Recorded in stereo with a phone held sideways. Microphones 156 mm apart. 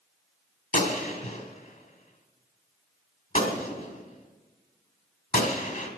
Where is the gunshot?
65° left (ahead or behind), 1.6 m.